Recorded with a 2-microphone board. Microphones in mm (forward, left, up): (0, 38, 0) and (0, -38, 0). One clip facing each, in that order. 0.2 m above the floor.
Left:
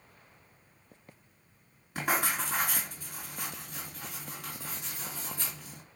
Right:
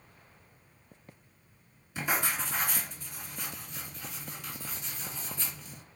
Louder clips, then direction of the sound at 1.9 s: Left 1 dB; 55° left (ahead or behind).